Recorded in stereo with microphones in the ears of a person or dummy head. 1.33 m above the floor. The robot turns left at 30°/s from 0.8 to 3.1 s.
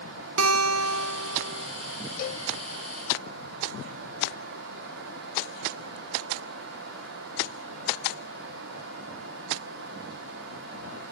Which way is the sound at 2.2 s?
55° left (ahead or behind).